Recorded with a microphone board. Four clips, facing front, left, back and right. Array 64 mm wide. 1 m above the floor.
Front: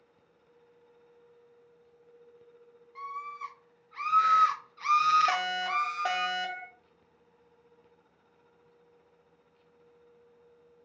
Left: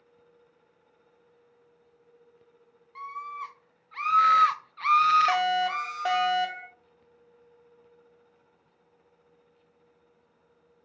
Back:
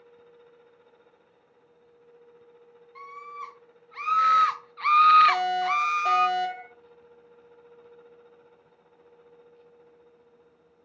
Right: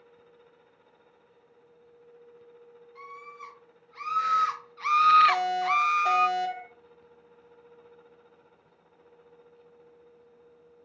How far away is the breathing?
No breathing in this recording.